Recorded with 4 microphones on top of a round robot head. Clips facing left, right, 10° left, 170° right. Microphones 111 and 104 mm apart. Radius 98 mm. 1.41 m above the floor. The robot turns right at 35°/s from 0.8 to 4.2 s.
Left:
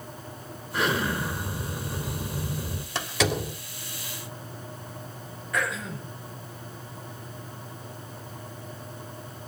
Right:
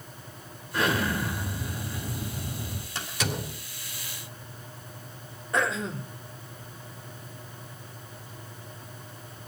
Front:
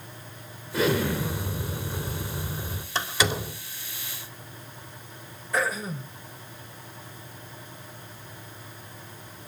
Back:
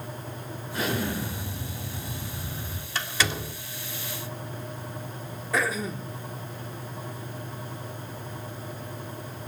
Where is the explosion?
15° left, 4 m; by 2.9 s 85° left, 4 m.